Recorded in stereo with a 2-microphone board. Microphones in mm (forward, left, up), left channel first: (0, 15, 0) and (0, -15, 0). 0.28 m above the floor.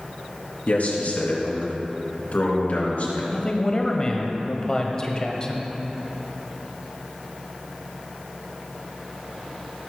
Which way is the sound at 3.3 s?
30° left (ahead or behind).